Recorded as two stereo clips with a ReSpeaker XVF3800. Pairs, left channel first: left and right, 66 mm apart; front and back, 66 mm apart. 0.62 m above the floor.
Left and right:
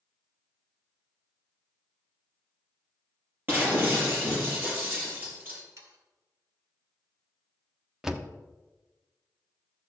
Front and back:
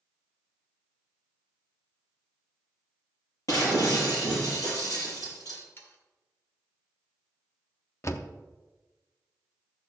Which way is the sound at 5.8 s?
55° right.